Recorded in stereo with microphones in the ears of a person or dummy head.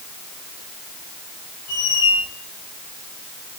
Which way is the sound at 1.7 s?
80° left.